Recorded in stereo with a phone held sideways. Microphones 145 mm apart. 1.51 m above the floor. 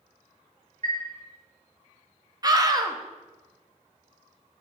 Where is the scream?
30° right (ahead or behind), 0.8 m.